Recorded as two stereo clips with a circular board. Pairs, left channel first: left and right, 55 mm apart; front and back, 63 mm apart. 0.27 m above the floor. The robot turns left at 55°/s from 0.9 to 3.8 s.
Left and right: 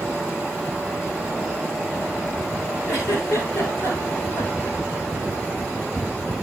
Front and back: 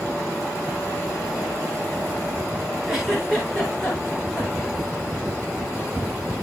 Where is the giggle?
105° left, 5 m; by 4.8 s 50° left, 5 m.